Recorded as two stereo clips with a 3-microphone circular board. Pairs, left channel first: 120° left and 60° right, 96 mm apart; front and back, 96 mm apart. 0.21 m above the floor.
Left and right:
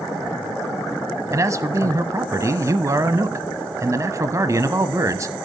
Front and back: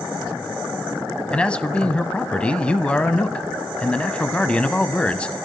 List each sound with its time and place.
1.3 s a man speaking: 70° right, 1.1 m